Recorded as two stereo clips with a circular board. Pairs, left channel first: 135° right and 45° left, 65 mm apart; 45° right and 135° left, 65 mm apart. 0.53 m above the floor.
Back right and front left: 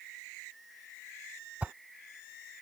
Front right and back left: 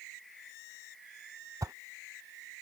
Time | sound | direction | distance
1.6 | a whoosh | 115° left | ?